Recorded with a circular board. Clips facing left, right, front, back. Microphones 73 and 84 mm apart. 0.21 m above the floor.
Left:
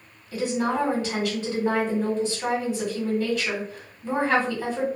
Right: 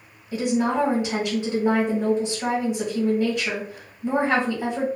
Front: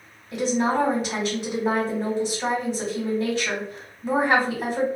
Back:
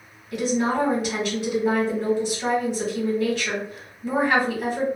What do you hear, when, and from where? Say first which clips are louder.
0.3 s a woman speaking: right 3 dB, even; 45° right, 1.3 m